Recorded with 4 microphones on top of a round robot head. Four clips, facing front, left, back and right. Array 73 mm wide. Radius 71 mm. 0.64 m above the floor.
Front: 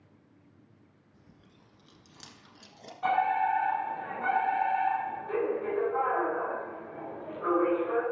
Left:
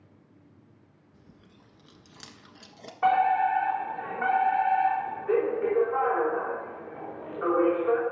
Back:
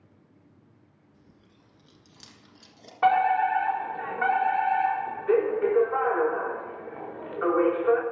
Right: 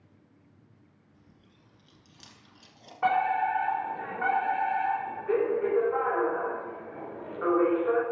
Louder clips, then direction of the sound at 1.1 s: Left 7 dB, even; 80° left.